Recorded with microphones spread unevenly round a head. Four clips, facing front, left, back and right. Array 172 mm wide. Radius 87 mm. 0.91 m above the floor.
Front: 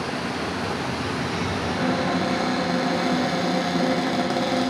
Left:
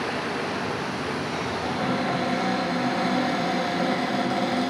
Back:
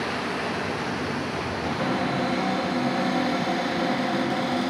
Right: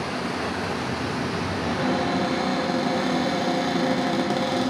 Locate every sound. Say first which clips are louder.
1.6 s a cupboard door: right 3 dB, front 2 dB; 45° right, 0.7 m